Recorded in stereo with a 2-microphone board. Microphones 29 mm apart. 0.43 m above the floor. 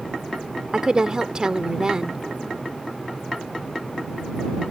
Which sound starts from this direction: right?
A woman speaking, at 0.7 s.